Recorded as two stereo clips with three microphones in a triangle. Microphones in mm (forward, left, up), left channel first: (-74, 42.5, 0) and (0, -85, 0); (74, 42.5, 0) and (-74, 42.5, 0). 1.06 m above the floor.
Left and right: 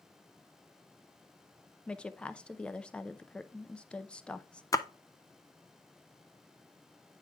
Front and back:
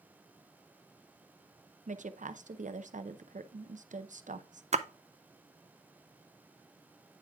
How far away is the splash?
About 0.5 m.